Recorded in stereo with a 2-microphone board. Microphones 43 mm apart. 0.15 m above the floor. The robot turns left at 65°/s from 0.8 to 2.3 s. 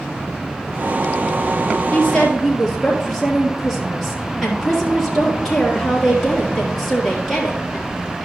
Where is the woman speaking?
30° left (ahead or behind), 3.5 m; by 8.2 s 5° left (ahead or behind), 3.5 m.